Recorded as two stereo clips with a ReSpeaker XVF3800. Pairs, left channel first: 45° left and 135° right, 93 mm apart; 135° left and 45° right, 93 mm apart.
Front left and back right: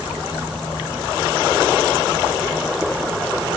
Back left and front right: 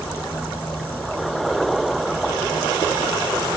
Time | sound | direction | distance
0.0 | an insect | 170° right | 1.2 m